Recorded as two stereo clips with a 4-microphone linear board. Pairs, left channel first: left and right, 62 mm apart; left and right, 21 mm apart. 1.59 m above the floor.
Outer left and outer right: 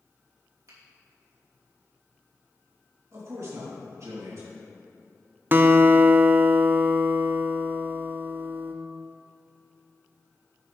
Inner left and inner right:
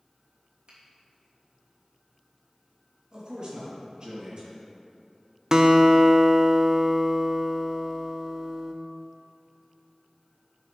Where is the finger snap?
55° right (ahead or behind), 2.5 m.